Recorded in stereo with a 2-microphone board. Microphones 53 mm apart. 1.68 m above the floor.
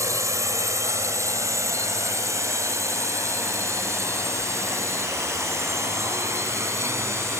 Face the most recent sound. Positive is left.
turn(degrees=-60)  # may be behind; listen again after turning